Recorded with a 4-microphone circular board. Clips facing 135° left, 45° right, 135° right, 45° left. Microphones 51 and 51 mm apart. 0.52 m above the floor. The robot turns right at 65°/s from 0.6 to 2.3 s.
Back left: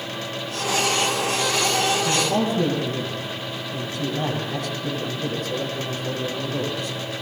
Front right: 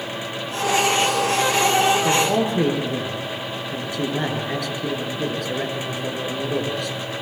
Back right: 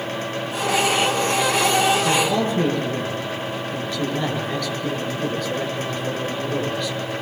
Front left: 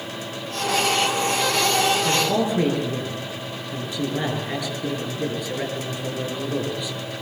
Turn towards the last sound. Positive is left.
turn(degrees=-30)